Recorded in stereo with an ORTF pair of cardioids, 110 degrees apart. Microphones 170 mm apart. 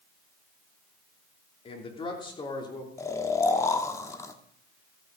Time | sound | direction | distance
1.6 | a man speaking | 35° left | 3 m
3.0 | snoring | 20° left | 1.3 m